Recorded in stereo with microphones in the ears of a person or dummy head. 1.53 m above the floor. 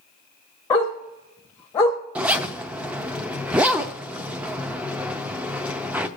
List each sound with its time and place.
0.7 s a dog barking: 10° left (ahead or behind), 1.0 m
2.1 s a zipper: 5° right (ahead or behind), 0.5 m